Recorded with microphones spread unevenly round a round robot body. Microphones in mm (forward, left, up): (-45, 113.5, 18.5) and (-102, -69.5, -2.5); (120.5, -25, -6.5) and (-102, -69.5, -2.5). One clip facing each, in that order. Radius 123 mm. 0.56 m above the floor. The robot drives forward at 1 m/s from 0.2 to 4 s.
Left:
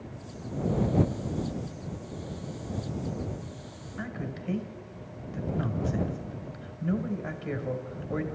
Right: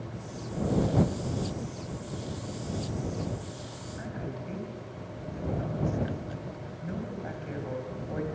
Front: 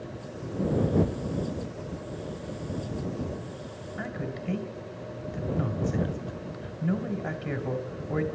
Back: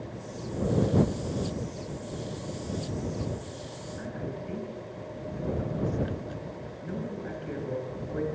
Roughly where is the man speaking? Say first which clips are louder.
Left 2 dB, front 2 dB; ahead left.